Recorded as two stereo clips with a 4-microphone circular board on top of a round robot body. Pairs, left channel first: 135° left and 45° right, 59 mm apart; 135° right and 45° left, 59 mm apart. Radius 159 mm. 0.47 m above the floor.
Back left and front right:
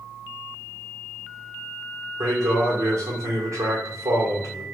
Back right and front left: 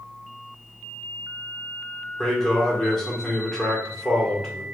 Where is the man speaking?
55° right, 2.5 m.